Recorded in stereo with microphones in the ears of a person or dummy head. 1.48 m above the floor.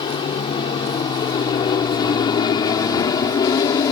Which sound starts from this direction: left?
An aircraft, at 0.0 s.